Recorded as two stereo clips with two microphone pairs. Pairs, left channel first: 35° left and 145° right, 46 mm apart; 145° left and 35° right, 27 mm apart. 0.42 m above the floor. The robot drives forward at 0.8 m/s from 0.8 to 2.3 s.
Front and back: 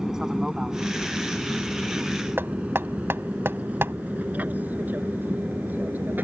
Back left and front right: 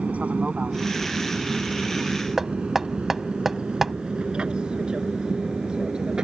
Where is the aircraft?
65° right; by 6.2 s 100° right.